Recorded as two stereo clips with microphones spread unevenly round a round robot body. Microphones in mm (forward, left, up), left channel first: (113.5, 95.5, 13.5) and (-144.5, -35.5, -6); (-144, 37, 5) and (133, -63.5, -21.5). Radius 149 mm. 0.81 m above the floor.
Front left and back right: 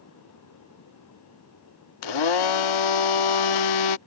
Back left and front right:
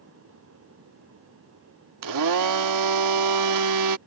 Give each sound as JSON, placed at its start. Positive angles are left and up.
{"t": 2.0, "sound": "a blender", "azimuth_deg": 10}